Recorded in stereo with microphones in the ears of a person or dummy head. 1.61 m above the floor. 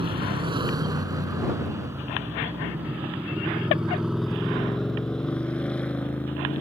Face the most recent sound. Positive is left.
turn(degrees=10)  # may be behind; listen again after turning